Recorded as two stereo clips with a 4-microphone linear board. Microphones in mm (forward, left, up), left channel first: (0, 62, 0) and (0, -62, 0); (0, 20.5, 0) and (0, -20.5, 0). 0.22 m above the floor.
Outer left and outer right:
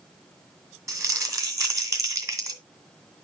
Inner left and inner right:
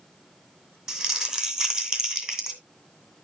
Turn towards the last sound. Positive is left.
turn(degrees=-25)  # may be behind; listen again after turning